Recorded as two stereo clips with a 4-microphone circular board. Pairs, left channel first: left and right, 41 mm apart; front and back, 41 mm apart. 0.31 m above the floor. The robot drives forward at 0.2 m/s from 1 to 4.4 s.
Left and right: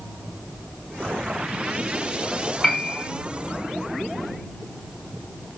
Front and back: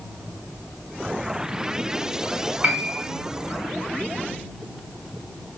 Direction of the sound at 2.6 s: 165° left.